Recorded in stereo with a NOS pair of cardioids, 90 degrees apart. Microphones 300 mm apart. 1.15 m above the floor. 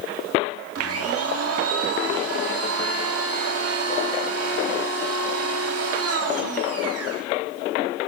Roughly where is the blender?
Ahead right.